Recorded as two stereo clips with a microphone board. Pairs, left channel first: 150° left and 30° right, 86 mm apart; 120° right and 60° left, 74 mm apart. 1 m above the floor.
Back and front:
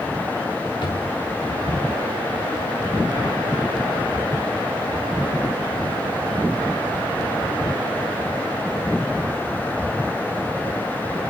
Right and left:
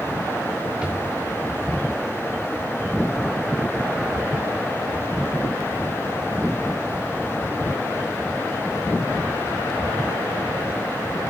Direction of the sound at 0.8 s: 135° left.